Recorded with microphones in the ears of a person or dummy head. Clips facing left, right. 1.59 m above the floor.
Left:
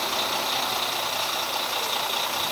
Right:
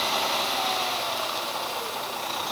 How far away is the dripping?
I don't hear dripping.